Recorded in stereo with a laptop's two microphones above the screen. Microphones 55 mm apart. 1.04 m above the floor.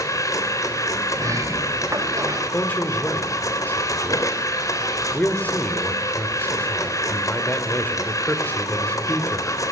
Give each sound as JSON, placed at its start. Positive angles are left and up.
{"t": 0.0, "sound": "a machine running", "side_deg": 80, "distance_m": 3.5}
{"t": 1.1, "sound": "a sliding door", "side_deg": -85, "distance_m": 5.0}
{"t": 2.5, "sound": "a man speaking", "side_deg": 30, "distance_m": 4.0}